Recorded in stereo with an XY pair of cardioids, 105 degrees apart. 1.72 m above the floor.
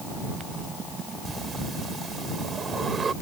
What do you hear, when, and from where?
1.2 s breathing: 35° right